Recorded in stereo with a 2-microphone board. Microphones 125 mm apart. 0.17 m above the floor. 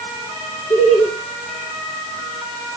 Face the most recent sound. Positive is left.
turn(degrees=75)  # may be behind; listen again after turning